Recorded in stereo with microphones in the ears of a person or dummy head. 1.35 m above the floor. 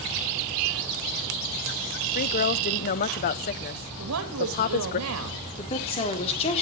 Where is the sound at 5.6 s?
35° left (ahead or behind), 3.5 m.